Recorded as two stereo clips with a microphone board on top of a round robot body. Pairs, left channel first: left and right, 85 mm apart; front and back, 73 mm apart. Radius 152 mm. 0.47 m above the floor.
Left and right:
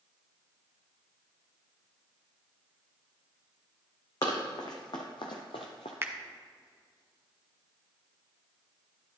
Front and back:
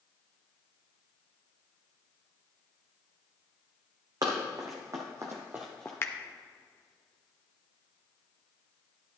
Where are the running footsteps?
135° left, 1.8 m; by 5.9 s 65° left, 0.5 m.